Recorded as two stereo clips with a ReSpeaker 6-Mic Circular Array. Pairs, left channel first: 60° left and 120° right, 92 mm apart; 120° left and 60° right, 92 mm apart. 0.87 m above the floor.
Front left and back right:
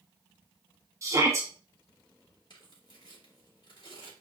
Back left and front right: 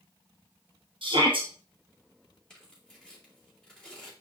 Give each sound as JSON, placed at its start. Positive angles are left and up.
{"t": 1.0, "sound": "a shout", "azimuth_deg": -65, "distance_m": 1.2}
{"t": 2.5, "sound": "tearing paper", "azimuth_deg": 40, "distance_m": 2.5}